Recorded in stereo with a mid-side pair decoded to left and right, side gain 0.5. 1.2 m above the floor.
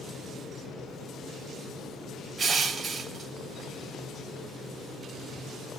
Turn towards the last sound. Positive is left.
turn(degrees=-40)